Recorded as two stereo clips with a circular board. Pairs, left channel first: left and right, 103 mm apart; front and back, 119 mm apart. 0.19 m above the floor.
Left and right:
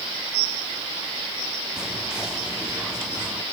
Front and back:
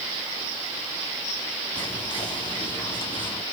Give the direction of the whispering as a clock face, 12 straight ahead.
12 o'clock.